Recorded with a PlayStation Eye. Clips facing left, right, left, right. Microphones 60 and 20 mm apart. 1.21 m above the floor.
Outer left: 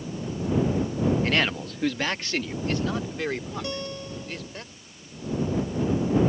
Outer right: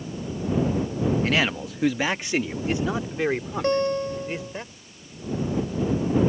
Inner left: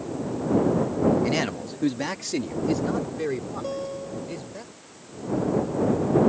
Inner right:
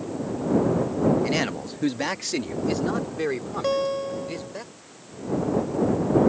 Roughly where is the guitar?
Right.